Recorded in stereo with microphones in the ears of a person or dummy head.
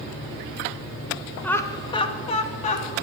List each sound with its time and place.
1.4 s laughter: 15° left (ahead or behind), 1.3 m; by 2.9 s 45° left (ahead or behind), 2.5 m